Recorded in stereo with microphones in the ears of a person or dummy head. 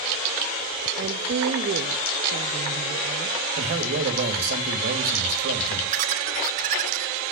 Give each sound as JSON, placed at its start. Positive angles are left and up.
{"t": 1.0, "sound": "a woman speaking", "side_deg": -45, "distance_m": 1.1}
{"t": 3.6, "sound": "a man speaking", "side_deg": -55, "distance_m": 2.5}
{"t": 5.9, "sound": "laughter", "side_deg": -40, "distance_m": 1.1}